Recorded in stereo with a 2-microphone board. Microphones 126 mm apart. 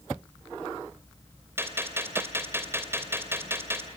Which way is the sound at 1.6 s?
20° right (ahead or behind).